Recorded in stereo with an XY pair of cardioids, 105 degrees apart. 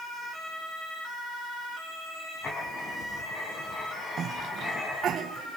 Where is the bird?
I don't hear a bird.